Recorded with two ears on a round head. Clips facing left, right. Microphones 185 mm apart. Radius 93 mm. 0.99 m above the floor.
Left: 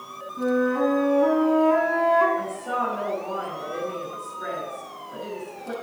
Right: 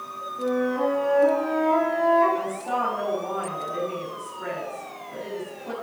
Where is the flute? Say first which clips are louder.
Left 2 dB; 80° left, 4 m.